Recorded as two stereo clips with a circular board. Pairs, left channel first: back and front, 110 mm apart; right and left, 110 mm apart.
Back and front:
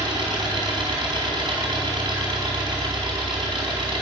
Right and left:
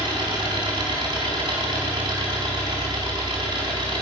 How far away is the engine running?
About 4.5 m.